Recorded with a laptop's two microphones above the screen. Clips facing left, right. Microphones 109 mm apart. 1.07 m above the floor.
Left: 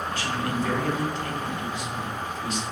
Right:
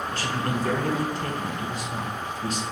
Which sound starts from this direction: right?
A man speaking, at 0.1 s.